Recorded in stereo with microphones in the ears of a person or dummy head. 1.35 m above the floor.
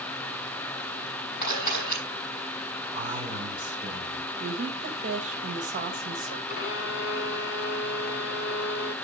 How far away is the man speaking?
About 5.5 m.